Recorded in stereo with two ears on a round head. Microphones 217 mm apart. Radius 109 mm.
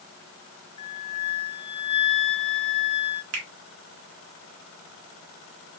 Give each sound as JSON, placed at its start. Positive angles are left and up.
{"t": 0.8, "sound": "a flute", "side_deg": 25, "distance_m": 0.8}
{"t": 3.3, "sound": "a finger snap", "side_deg": -60, "distance_m": 1.9}